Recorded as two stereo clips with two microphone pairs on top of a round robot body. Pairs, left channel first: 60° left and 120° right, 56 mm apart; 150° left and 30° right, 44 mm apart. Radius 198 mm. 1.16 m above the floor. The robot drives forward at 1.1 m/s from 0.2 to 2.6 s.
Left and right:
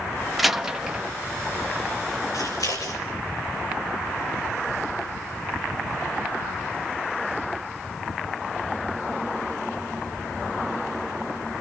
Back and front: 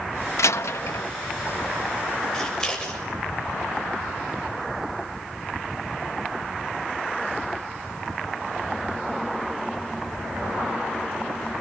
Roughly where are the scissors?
Left.